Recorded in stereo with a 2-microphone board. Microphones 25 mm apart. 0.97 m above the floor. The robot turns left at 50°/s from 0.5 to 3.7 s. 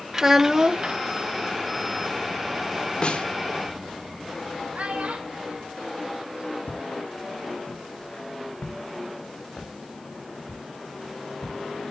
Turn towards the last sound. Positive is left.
turn(degrees=30)  # may be behind; listen again after turning